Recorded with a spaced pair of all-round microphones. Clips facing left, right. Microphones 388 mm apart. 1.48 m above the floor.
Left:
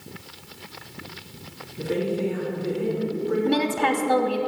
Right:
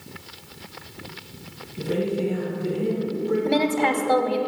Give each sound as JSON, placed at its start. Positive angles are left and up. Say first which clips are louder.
{"t": 1.8, "sound": "a man speaking", "louder": "right 1 dB", "side_deg": -45, "distance_m": 2.0}
{"t": 3.5, "sound": "a woman speaking", "louder": "right 1 dB", "side_deg": 25, "distance_m": 0.7}